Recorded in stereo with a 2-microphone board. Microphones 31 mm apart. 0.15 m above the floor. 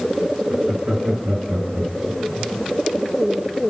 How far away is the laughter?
About 2.5 m.